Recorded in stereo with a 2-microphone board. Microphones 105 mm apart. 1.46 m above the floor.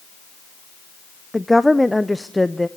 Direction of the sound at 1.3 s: Centre (ahead or behind).